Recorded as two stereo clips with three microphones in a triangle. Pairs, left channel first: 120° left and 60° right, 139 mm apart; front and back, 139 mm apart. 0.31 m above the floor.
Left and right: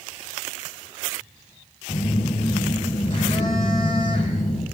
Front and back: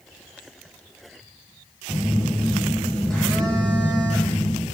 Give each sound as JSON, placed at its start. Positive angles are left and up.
{"t": 1.9, "sound": "a phone buzzing", "azimuth_deg": 85, "distance_m": 4.0}